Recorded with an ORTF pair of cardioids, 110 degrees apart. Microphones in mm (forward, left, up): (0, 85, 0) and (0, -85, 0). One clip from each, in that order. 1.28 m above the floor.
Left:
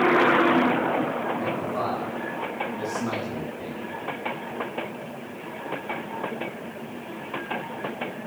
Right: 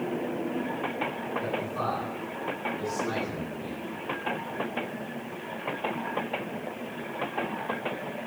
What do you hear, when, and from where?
1.4 s a man speaking: 60° left, 9 m; by 4.0 s 75° left, 11.5 m